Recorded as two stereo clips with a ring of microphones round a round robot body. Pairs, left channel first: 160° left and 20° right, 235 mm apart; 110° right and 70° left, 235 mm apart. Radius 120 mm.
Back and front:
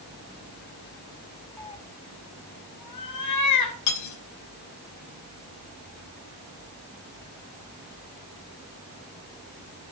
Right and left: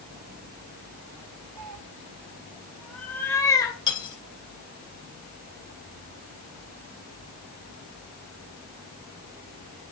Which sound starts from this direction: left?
A cat meowing, at 1.6 s.